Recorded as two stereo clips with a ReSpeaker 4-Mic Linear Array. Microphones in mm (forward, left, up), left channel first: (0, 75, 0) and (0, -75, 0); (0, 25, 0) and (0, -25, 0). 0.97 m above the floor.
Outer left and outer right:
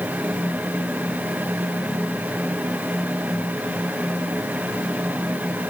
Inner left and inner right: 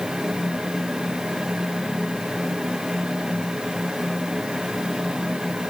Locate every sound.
Only background noise.